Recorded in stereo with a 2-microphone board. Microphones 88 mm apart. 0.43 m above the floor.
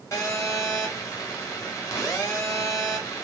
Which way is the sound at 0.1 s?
40° left (ahead or behind).